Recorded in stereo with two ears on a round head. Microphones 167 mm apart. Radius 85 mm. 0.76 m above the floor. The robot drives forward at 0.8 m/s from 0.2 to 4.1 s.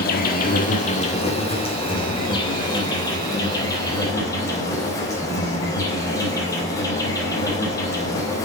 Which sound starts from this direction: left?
An insect, at 0.0 s.